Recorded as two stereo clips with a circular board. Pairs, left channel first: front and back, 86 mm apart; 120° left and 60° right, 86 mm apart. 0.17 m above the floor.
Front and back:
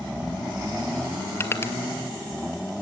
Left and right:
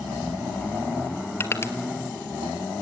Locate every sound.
1.4 s crushing: 60° left, 1.2 m